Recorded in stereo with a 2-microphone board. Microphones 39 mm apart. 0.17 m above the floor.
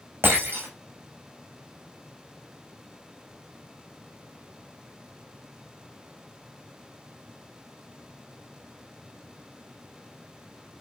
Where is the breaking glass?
85° right, 5.5 m.